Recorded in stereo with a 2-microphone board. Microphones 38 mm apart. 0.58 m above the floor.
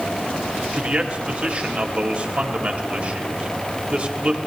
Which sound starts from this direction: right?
A man speaking, at 0.7 s.